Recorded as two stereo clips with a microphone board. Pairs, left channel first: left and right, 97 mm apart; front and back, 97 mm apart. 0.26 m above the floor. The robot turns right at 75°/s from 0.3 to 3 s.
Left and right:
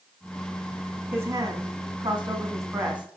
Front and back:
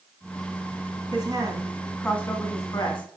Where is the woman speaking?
155° right, 1.8 m; by 3.2 s 15° right, 1.8 m.